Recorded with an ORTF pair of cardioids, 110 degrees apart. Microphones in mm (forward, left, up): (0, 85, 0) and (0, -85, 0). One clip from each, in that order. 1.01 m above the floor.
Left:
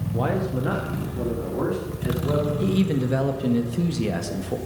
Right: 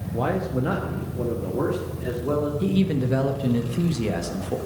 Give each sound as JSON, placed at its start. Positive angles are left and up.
{"t": 0.1, "sound": "a man speaking", "azimuth_deg": 0, "distance_m": 1.0}
{"t": 2.6, "sound": "a man speaking", "azimuth_deg": 0, "distance_m": 1.1}